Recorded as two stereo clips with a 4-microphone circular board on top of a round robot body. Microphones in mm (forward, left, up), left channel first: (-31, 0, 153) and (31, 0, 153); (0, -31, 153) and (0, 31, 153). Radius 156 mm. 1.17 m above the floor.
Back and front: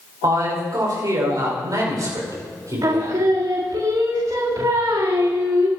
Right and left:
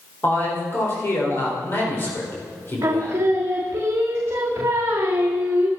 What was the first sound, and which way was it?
A man speaking, 35° right.